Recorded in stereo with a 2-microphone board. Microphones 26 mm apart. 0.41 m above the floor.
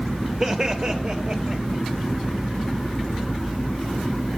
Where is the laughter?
30° right (ahead or behind), 1.0 m; by 1.8 s 50° right (ahead or behind), 1.6 m.